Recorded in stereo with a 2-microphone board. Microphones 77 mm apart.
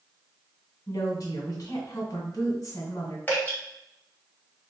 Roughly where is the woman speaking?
Left.